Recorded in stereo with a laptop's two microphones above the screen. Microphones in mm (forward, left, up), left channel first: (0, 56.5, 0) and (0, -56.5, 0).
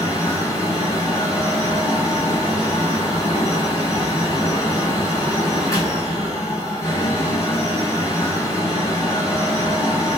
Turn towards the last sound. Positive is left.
turn(degrees=30)  # may be behind; listen again after turning